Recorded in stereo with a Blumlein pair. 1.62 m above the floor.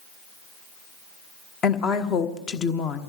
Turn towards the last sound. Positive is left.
turn(degrees=25)